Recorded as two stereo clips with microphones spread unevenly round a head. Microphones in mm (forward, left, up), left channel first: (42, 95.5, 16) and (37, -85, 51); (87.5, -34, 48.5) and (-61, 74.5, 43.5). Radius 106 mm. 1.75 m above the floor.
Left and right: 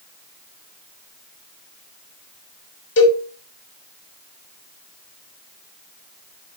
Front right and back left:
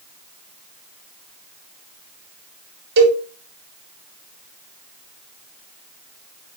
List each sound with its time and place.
3.0 s a cowbell: 125° left, 6.5 m